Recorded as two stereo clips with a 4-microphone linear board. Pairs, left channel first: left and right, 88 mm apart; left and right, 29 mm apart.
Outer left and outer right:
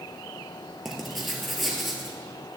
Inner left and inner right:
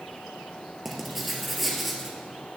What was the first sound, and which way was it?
Writing, centre (ahead or behind).